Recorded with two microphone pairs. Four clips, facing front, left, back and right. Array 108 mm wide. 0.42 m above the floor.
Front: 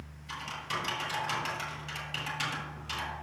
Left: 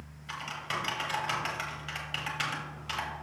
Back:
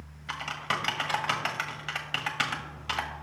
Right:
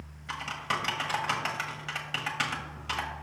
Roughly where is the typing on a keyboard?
Behind.